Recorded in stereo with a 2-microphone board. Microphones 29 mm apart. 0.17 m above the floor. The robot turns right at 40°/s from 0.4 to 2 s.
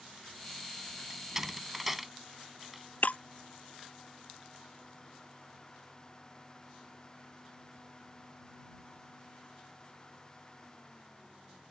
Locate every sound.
1.1 s a door slam: 20° right (ahead or behind); by 2.8 s 5° right (ahead or behind)
3.0 s breaking glass: 55° left (ahead or behind)